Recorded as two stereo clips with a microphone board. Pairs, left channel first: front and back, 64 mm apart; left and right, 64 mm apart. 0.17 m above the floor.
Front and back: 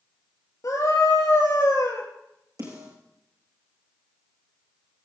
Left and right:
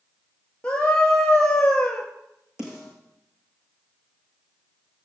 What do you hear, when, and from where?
0.6 s a scream: 15° left, 3 m
2.6 s a snare drum: 170° right, 6 m